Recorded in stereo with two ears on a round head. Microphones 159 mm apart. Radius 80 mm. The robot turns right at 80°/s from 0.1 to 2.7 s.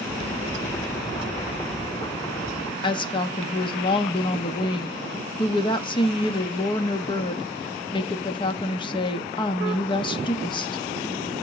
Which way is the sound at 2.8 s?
30° left (ahead or behind).